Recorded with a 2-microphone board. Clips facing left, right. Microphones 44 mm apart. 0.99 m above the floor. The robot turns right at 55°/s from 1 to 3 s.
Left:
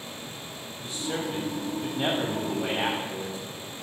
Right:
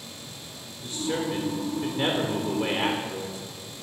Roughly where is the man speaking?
Behind right.